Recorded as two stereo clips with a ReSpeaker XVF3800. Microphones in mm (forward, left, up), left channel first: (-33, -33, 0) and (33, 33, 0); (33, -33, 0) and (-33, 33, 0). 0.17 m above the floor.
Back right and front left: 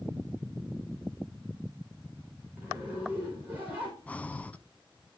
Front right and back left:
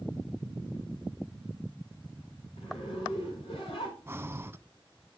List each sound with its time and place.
2.6 s a zipper: 30° right, 4.5 m
4.1 s breathing: 170° left, 0.5 m